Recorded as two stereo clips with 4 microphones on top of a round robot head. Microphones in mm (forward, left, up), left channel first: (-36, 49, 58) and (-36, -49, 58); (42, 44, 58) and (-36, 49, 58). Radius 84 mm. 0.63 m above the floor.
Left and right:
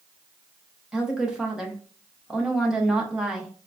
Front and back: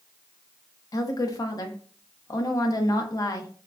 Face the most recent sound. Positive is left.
turn(degrees=-10)